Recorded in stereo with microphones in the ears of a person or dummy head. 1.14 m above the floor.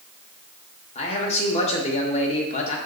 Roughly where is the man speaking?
Left.